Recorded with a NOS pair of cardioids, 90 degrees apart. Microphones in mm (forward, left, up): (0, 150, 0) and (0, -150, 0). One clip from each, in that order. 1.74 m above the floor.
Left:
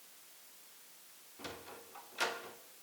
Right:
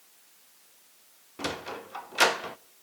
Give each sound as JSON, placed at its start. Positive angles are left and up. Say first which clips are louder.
{"t": 1.4, "sound": "a sliding door", "louder": "right 14 dB", "azimuth_deg": -65, "distance_m": 0.5}